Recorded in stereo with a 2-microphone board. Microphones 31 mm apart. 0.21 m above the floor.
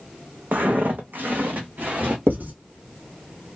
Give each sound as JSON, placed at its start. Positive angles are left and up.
{"t": 0.5, "sound": "footsteps", "side_deg": -65, "distance_m": 0.7}
{"t": 2.3, "sound": "writing", "side_deg": -75, "distance_m": 0.8}